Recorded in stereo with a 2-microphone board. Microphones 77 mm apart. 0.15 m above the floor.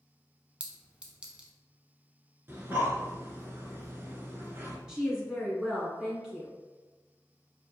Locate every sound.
0.6 s a clink: 15° right (ahead or behind), 0.6 m
2.5 s breathing: 30° right (ahead or behind), 0.8 m
4.9 s a woman speaking: 10° right (ahead or behind), 1.3 m